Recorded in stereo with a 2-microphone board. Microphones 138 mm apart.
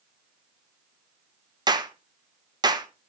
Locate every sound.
1.7 s a clap: 30° right (ahead or behind), 1.0 m